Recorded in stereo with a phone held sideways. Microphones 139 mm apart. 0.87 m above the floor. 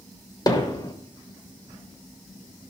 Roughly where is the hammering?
Left.